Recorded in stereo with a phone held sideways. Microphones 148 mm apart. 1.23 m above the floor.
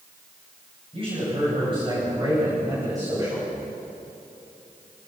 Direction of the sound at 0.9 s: 40° right (ahead or behind).